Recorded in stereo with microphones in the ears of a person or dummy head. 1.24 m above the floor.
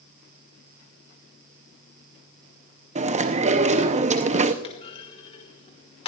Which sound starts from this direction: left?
A clunk, at 4.6 s.